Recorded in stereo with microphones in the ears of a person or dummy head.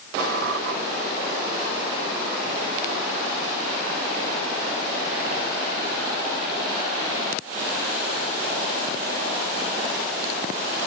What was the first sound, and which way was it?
A squeak, 50° right (ahead or behind).